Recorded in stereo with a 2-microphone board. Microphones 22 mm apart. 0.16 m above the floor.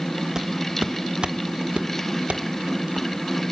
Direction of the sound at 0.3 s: 25° right (ahead or behind).